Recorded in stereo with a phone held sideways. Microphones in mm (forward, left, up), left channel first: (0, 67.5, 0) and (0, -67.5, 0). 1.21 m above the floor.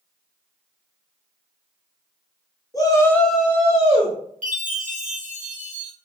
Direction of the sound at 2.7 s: 25° left (ahead or behind).